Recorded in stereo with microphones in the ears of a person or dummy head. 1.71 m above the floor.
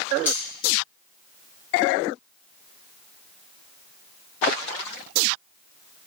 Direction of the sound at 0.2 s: 10° right (ahead or behind).